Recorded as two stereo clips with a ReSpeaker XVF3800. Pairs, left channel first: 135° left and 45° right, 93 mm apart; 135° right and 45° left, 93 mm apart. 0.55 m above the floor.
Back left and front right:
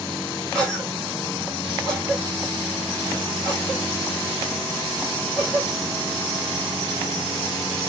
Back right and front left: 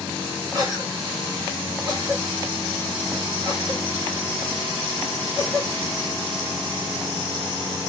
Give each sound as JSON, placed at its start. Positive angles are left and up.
{"t": 0.5, "sound": "a cough", "azimuth_deg": 55, "distance_m": 1.9}